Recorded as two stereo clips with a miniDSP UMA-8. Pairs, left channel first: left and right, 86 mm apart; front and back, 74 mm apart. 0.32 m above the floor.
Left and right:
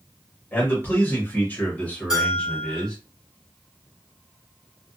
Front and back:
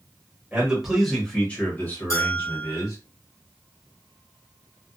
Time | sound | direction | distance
0.5 | a man speaking | 125° left | 1.1 m
2.1 | a bell | 10° right | 1.4 m